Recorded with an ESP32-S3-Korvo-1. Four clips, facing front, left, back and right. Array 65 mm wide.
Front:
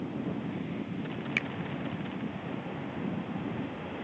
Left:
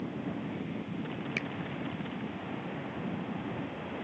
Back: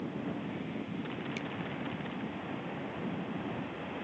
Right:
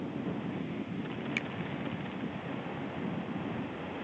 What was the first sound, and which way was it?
A finger snap, 5° left.